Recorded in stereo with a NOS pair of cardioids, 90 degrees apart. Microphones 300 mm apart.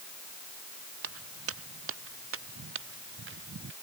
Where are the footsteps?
50° right; by 3.7 s 40° right.